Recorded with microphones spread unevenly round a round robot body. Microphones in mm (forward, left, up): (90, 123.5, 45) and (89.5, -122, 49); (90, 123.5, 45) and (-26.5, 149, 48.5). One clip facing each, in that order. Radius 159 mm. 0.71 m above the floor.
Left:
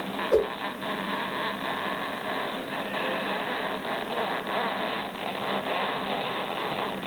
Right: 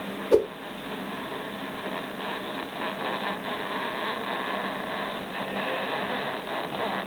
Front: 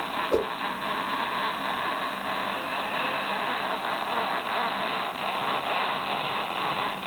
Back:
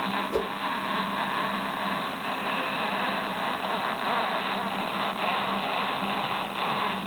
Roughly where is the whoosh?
Ahead right.